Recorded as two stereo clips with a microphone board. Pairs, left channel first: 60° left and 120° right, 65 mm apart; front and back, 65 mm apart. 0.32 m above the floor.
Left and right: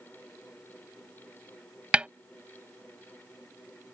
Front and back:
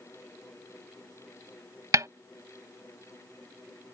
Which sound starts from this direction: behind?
A snare drum, at 1.9 s.